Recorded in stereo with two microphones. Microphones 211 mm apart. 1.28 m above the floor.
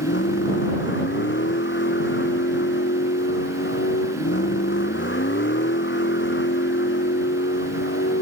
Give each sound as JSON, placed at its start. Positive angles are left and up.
{"t": 0.0, "sound": "a vehicle", "side_deg": 60}